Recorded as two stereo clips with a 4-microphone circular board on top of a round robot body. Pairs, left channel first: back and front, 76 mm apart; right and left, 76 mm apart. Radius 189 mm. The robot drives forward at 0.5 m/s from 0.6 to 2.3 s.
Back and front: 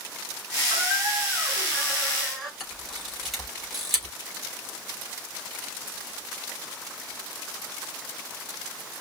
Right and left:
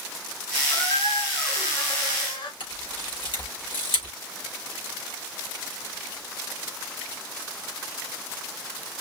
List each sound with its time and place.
0.7 s a squeak: 80° right, 3 m; by 2.5 s 90° right, 3 m
2.6 s a camera shutter: 90° right, 3.5 m